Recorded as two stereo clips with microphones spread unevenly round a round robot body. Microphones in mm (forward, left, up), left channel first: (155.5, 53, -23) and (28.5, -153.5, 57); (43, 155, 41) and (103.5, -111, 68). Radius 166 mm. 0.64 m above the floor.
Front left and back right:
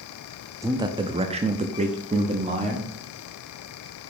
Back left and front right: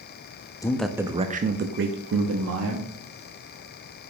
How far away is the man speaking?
About 0.6 m.